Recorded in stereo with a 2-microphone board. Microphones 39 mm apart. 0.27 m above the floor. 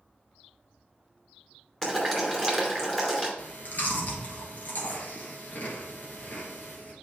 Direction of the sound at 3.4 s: 45° left (ahead or behind).